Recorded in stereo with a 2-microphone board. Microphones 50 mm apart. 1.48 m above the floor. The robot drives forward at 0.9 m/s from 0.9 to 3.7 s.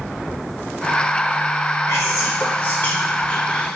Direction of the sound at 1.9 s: 50° left (ahead or behind).